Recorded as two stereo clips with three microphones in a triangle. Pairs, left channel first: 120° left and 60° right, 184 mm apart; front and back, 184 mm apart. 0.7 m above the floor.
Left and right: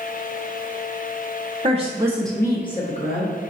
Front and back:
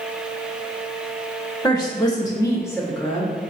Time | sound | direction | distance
1.6 | a woman speaking | 65° right | 0.8 m